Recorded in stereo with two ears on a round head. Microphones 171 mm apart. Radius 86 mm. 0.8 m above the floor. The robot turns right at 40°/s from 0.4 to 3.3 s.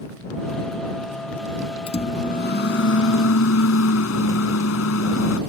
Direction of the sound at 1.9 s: 30° left.